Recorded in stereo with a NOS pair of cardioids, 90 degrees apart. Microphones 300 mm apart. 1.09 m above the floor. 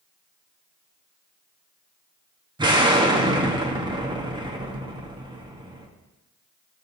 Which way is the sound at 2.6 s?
15° right.